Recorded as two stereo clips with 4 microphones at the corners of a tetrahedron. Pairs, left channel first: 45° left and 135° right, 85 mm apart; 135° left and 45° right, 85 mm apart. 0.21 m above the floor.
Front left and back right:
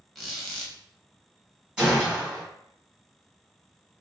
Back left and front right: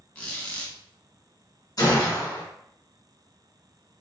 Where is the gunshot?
150° left, 1.5 m.